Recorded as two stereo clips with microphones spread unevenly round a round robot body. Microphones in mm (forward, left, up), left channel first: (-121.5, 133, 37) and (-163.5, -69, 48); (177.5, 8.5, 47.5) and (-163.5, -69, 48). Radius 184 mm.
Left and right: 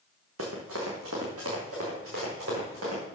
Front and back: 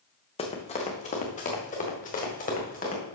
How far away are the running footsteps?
About 1.6 m.